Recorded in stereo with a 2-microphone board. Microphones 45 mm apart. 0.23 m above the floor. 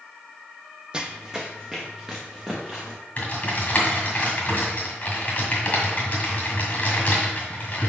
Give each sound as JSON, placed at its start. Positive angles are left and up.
{"t": 0.9, "sound": "running footsteps", "side_deg": -20, "distance_m": 0.5}
{"t": 3.2, "sound": "typing on a keyboard", "side_deg": 35, "distance_m": 1.8}